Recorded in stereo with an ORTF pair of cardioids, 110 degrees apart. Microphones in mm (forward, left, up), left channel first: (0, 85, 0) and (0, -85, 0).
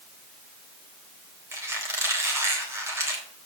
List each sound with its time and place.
1.5 s a squeak: 15° right, 4 m